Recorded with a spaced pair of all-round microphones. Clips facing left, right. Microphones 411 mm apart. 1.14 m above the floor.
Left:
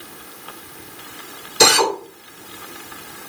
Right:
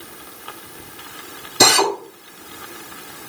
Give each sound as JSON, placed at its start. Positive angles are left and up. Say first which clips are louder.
{"t": 1.6, "sound": "a drill", "louder": "even", "side_deg": -60, "distance_m": 2.0}